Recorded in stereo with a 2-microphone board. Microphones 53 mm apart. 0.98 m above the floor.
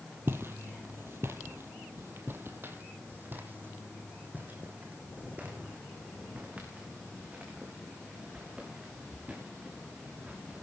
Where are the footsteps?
45° right (ahead or behind), 1.4 m; by 10.6 s 25° right (ahead or behind), 6 m.